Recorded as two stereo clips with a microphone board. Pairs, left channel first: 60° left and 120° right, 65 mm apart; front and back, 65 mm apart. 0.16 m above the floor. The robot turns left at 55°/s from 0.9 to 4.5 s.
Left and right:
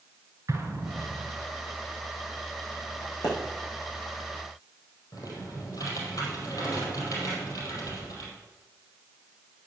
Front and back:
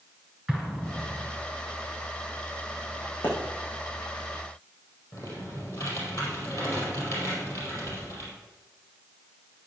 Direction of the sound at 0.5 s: 110° right.